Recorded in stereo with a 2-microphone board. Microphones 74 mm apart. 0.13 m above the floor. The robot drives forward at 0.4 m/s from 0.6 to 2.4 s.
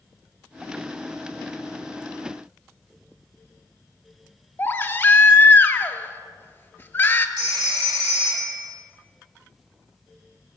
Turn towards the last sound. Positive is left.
turn(degrees=-70)  # may be behind; listen again after turning